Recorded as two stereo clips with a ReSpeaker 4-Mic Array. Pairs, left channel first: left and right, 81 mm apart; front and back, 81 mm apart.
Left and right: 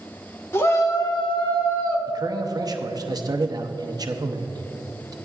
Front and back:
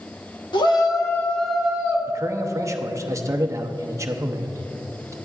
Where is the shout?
30° left, 1.1 m; by 2.0 s 115° left, 1.2 m.